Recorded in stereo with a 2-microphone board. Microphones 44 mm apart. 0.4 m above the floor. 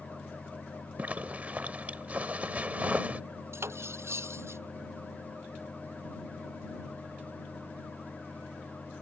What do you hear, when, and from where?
1.0 s a zipper: 35° right (ahead or behind)
3.5 s cutlery clinking: 75° right (ahead or behind)